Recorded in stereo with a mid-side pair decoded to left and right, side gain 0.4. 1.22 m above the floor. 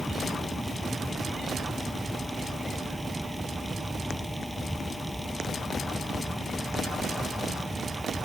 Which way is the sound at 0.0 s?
Straight ahead.